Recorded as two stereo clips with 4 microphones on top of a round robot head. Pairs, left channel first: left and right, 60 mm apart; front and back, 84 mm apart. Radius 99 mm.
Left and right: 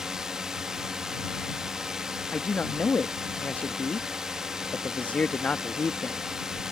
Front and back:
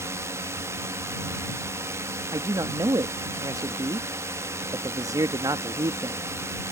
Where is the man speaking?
150° left.